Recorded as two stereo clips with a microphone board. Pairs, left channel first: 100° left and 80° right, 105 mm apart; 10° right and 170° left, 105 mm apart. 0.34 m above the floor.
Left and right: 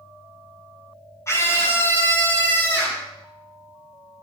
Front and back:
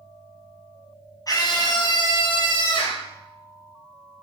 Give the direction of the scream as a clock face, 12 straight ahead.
11 o'clock.